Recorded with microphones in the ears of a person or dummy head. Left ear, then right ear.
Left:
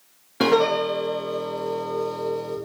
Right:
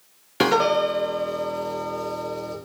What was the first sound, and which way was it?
A piano, 60° right (ahead or behind).